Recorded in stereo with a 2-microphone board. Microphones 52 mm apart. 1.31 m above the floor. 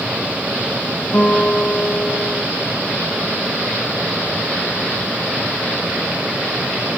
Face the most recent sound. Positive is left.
turn(degrees=50)  # may be behind; listen again after turning